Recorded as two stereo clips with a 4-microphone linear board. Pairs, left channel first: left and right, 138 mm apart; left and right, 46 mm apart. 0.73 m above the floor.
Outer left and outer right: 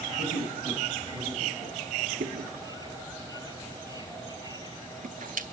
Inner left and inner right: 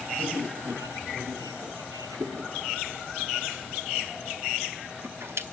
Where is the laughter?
15° right (ahead or behind), 6.5 m.